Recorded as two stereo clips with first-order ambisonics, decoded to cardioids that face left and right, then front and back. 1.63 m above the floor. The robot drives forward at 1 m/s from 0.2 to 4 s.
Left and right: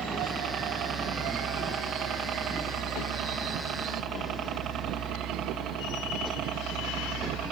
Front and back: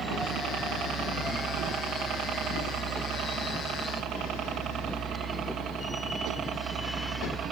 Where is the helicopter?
145° right; by 7.5 s 125° right.